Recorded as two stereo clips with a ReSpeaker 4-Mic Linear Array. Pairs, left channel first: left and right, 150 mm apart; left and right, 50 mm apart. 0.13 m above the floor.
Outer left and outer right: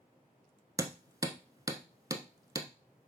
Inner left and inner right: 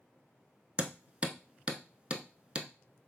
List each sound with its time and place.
0.8 s hammering: 25° right (ahead or behind), 0.5 m